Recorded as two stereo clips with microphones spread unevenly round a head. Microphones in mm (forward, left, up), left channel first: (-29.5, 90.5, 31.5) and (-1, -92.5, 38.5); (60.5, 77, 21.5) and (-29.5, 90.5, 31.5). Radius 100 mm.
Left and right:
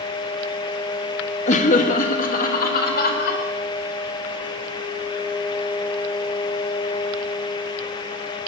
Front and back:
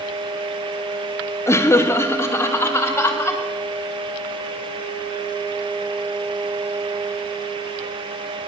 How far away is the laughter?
About 1.4 m.